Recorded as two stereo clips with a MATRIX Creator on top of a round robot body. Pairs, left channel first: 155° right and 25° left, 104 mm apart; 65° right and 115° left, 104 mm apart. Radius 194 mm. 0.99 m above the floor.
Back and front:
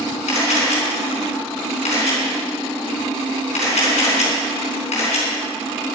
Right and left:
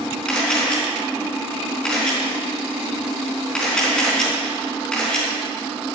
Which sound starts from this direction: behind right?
A camera shutter, at 0.3 s.